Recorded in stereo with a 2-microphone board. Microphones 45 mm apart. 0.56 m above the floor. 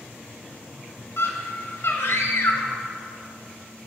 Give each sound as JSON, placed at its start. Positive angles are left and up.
{"t": 1.2, "sound": "a scream", "side_deg": 70, "distance_m": 2.5}